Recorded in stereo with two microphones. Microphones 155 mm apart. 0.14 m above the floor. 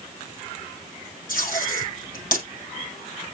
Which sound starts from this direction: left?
Tape being pulled, at 1.3 s.